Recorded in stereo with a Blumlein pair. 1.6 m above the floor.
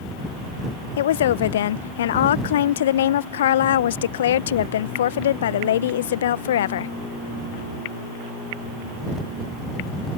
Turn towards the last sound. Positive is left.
turn(degrees=60)